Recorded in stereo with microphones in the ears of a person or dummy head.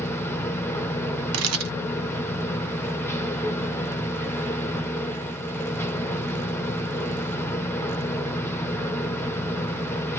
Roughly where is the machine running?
Centre.